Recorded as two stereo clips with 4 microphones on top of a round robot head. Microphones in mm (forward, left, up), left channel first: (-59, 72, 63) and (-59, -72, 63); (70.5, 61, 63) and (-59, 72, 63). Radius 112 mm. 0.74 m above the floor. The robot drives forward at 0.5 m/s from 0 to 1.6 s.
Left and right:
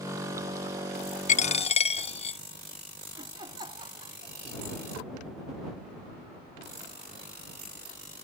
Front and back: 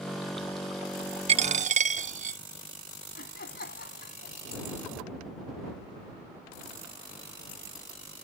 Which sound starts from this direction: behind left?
A dropped coin, at 1.3 s.